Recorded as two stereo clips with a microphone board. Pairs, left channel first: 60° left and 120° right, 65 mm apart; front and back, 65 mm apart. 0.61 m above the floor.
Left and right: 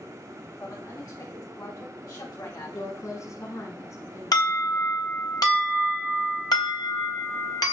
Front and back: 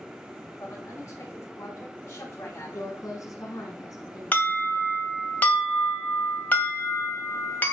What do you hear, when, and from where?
0.6 s a woman speaking: 40° left, 7 m; by 2.8 s 50° left, 4 m
2.7 s a woman speaking: 25° left, 7.5 m
4.3 s an alarm: 65° left, 2.5 m